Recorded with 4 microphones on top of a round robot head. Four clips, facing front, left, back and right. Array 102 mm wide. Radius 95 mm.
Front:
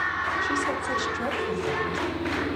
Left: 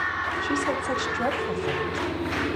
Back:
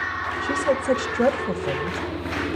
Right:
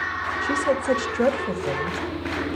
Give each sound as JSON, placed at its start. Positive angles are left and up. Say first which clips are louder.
{"t": 0.4, "sound": "a woman speaking", "louder": "right 6 dB, back 4 dB", "azimuth_deg": -135, "distance_m": 2.5}